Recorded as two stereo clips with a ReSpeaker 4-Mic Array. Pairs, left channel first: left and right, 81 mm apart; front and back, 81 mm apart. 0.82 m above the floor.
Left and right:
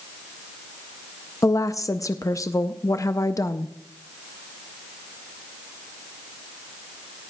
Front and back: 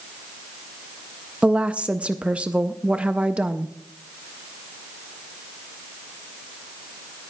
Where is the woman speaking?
110° left, 0.5 m.